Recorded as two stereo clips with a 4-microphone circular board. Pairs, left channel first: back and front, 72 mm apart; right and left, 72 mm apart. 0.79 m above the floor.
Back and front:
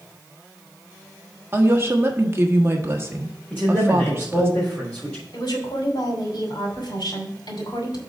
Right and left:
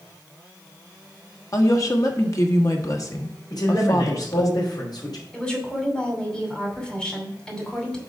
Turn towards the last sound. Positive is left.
turn(degrees=-170)